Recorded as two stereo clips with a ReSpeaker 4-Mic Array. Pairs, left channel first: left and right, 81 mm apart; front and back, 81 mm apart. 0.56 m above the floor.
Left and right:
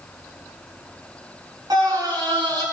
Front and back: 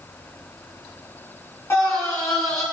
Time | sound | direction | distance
1.7 | a scream | 55° right | 7 m